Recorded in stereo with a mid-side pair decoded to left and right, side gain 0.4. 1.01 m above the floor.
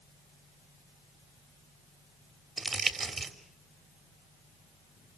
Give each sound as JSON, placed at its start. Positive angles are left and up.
{"t": 2.6, "sound": "crumpling", "azimuth_deg": -45, "distance_m": 3.5}